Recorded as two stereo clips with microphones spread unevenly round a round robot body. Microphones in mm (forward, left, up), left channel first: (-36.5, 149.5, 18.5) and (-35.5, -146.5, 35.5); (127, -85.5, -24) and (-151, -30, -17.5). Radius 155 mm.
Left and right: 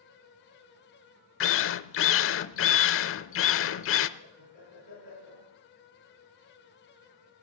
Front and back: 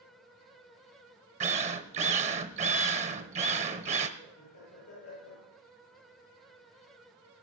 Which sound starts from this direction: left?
A drill, at 1.4 s.